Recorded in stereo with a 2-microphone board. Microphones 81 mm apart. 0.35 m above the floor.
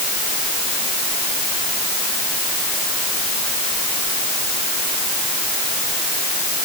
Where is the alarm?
I don't hear an alarm.